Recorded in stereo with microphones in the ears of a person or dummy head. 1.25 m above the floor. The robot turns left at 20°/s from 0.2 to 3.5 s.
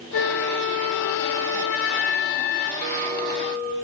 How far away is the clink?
About 0.9 m.